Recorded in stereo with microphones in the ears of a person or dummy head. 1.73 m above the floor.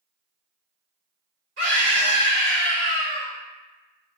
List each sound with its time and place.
1.6 s a scream: 60° right (ahead or behind), 1.8 m